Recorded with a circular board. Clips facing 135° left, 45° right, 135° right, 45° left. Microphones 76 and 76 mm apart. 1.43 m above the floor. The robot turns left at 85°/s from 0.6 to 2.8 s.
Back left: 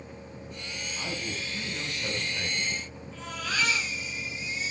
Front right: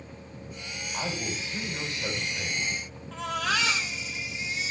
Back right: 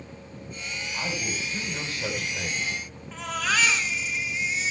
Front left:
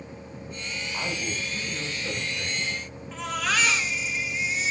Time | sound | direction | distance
0.9 | a man speaking | 25° right | 9 m
3.1 | a baby crying | 45° right | 5.5 m